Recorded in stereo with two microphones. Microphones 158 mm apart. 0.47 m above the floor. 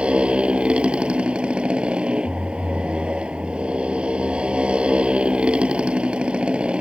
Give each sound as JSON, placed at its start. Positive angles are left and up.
{"t": 0.0, "sound": "a motorcycle", "side_deg": -5}